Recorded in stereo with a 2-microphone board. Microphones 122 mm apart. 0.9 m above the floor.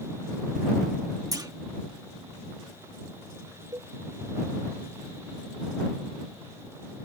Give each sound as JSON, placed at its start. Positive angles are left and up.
{"t": 1.3, "sound": "a clunk", "side_deg": -30}
{"t": 3.7, "sound": "a cowbell", "side_deg": -30}